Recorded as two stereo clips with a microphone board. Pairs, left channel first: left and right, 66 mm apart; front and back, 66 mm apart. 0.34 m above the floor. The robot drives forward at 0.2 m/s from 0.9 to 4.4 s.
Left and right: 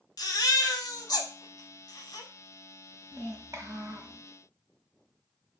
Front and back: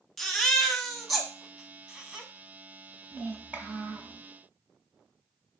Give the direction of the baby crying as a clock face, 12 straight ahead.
9 o'clock.